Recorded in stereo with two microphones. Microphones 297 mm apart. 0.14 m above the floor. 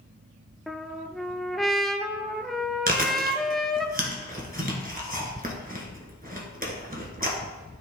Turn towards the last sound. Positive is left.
turn(degrees=-30)  # may be behind; listen again after turning